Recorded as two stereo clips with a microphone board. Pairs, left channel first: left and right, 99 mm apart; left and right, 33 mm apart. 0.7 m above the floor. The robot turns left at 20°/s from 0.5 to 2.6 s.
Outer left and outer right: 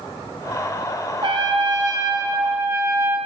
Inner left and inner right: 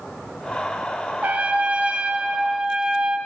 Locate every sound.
1.2 s a trumpet: 55° right (ahead or behind), 4.5 m; by 3.2 s 25° right (ahead or behind), 4.5 m